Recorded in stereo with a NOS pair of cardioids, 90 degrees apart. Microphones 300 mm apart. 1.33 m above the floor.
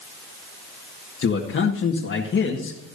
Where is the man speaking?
40° left, 1.8 m.